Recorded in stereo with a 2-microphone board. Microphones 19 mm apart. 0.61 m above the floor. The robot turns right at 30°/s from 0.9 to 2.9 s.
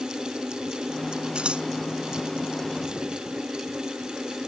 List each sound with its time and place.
1.4 s scissors: 65° right (ahead or behind); by 1.6 s 70° right (ahead or behind)